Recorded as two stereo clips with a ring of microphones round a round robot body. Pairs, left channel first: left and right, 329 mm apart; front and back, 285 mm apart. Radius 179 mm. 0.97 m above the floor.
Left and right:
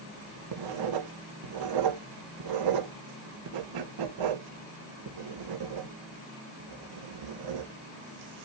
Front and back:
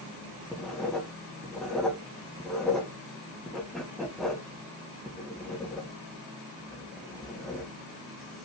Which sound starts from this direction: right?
Writing, at 0.5 s.